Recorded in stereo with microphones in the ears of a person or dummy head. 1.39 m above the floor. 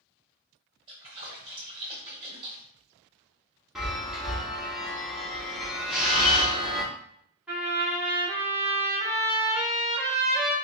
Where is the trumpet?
10° right (ahead or behind), 2 m.